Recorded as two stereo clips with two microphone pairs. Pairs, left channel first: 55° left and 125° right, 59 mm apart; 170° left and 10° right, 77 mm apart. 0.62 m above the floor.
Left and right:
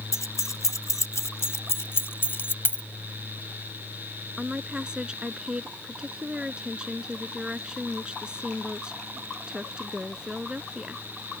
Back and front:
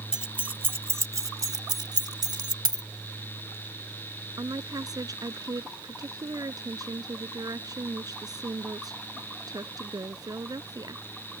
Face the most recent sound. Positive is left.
turn(degrees=-50)